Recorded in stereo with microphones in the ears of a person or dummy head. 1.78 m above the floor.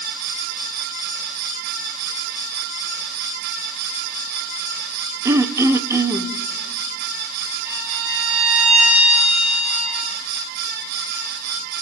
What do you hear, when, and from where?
5.2 s throat clearing: 20° right (ahead or behind), 1.0 m
7.7 s a violin: 10° right (ahead or behind), 4.5 m